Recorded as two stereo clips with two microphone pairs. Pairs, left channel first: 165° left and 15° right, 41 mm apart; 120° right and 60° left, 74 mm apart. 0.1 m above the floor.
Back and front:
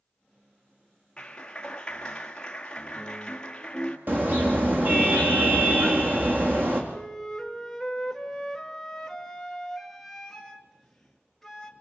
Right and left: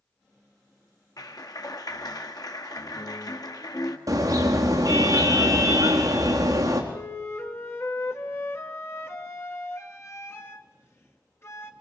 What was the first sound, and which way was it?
A clap, 130° right.